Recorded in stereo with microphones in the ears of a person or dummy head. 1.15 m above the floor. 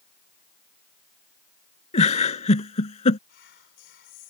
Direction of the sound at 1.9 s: 35° left (ahead or behind).